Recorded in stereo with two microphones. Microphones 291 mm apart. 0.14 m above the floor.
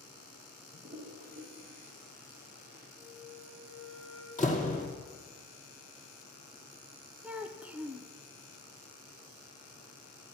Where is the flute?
45° right (ahead or behind), 3 m.